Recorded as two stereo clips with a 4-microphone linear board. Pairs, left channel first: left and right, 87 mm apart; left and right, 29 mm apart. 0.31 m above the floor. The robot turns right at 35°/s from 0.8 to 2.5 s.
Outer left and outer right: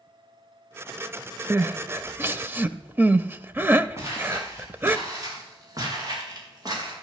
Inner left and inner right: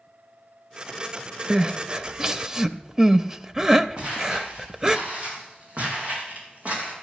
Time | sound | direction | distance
1.5 | crying | 25° right (ahead or behind) | 0.6 m
4.0 | footsteps | 30° right (ahead or behind) | 8 m